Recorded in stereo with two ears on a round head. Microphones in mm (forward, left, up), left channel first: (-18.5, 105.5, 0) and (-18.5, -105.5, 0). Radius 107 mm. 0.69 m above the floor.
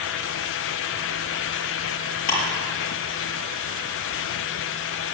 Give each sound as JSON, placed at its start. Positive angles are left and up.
{"t": 2.3, "sound": "ticking", "side_deg": 80, "distance_m": 6.0}